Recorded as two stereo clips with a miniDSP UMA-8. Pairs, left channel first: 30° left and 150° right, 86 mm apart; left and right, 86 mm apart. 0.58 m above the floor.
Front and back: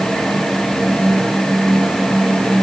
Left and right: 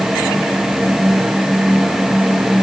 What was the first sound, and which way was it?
Only background noise.